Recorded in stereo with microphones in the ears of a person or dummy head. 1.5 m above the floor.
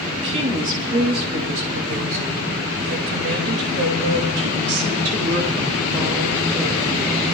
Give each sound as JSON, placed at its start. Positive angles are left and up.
{"t": 0.1, "sound": "a woman speaking", "side_deg": -35, "distance_m": 3.0}